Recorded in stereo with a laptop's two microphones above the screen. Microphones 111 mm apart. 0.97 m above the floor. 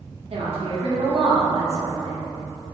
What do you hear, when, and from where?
0.3 s a woman speaking: 65° right (ahead or behind), 1.2 m